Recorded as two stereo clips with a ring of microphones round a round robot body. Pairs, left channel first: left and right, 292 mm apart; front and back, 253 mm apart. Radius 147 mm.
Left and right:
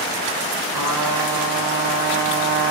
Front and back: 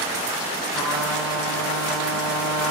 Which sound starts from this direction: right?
A trumpet, at 0.7 s.